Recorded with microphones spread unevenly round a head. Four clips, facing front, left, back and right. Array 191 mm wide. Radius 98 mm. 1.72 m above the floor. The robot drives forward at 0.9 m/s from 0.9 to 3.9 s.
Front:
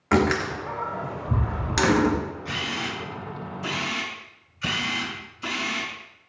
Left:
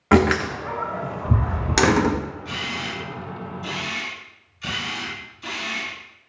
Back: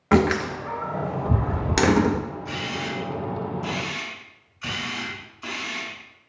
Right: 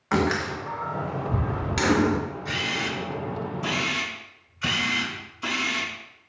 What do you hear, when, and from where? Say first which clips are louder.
0.1 s a door slam: left 6 dB, back 2 dB; 95° left, 1.3 m; by 2.2 s 140° left, 1.8 m
2.5 s a camera shutter: right 1 dB, back 1 dB; 45° right, 4 m; by 5.9 s 60° right, 3.5 m